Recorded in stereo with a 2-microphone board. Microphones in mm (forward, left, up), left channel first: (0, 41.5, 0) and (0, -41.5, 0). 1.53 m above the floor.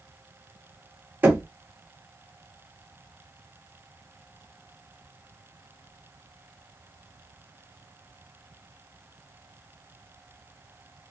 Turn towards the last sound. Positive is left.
turn(degrees=-25)  # may be behind; listen again after turning